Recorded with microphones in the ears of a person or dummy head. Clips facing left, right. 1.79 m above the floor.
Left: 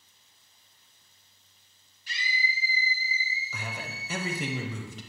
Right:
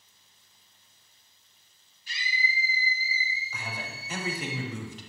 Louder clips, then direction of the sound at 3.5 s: Left 1 dB; 80° left.